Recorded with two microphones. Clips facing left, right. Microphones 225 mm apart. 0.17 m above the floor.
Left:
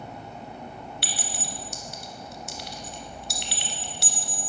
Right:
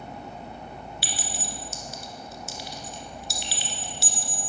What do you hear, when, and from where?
1.0 s a clink: 60° left (ahead or behind), 1.4 m